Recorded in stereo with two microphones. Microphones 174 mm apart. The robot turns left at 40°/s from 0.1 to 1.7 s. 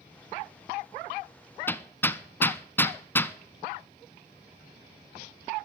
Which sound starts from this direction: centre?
Hammering, at 1.7 s.